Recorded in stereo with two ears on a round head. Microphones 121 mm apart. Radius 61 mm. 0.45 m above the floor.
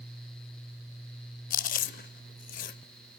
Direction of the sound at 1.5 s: 70° left (ahead or behind).